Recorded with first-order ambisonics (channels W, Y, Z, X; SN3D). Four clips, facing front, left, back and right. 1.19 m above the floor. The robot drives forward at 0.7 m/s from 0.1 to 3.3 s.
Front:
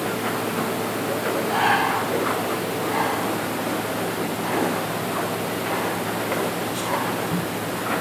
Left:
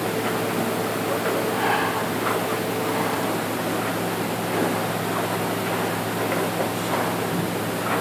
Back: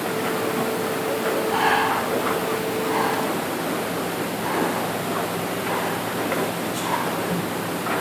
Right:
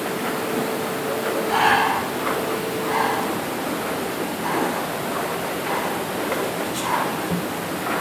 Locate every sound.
1.5 s breathing: 100° right, 3.5 m; by 8.0 s 120° right, 3.5 m